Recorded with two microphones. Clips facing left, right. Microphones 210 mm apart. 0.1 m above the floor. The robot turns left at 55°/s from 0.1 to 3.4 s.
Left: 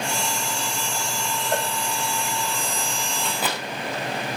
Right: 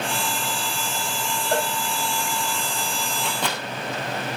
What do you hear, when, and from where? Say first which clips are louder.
1.5 s a cowbell: right 3 dB; 70° right (ahead or behind), 6.5 m; by 1.7 s 75° right (ahead or behind), 6.5 m
3.2 s a microwave: left 1 dB; 5° right (ahead or behind), 6 m; by 3.6 s 5° left (ahead or behind), 6 m